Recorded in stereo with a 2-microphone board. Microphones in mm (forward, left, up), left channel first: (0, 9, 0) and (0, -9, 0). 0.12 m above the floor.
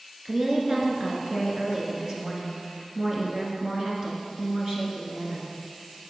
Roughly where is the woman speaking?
Right.